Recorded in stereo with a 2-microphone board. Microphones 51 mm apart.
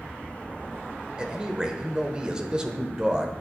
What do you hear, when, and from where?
1.2 s a man speaking: 15° right (ahead or behind), 0.9 m